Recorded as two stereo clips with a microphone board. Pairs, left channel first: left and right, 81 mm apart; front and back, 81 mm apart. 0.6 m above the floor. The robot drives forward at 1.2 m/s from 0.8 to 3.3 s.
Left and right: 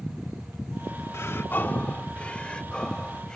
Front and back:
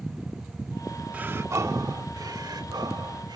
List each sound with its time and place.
1.1 s breathing: 120° left; by 3.4 s 170° left